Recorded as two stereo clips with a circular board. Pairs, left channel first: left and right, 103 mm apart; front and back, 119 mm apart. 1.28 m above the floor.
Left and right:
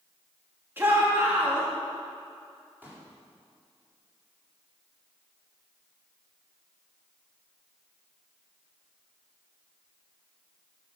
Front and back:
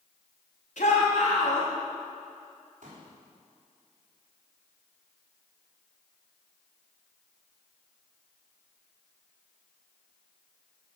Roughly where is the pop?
Behind.